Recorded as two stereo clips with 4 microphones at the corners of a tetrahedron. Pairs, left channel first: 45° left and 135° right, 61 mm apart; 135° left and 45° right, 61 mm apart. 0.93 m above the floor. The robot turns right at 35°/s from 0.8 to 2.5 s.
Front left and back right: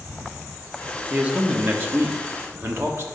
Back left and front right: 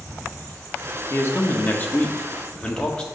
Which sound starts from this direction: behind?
A man speaking, at 1.1 s.